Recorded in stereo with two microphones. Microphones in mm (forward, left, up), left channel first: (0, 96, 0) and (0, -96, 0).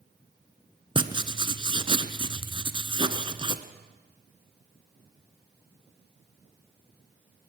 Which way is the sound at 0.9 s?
25° right (ahead or behind).